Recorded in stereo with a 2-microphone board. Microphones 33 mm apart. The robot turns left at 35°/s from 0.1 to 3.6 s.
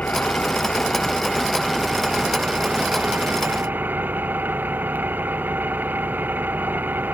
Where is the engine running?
50° left; by 7.1 s 70° right.